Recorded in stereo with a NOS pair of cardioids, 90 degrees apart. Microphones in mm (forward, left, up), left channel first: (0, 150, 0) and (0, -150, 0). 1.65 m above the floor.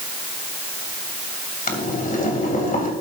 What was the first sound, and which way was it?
Boiling, 30° left.